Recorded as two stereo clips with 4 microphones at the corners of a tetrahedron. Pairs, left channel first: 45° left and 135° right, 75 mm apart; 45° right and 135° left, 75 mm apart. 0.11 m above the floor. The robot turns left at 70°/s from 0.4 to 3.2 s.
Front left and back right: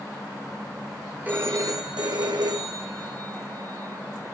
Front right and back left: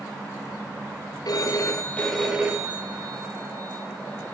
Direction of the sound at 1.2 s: 70° right.